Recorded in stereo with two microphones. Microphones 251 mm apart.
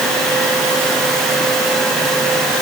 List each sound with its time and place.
Only background noise.